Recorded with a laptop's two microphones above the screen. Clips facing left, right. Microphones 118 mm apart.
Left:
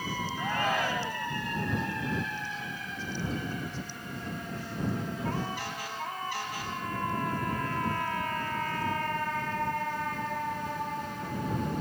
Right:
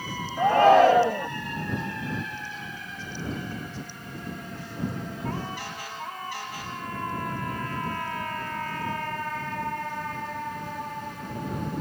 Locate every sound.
0.4 s a shout: 70° right (ahead or behind)